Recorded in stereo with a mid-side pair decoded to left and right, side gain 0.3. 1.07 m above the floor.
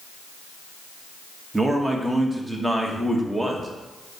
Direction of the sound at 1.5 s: 15° right.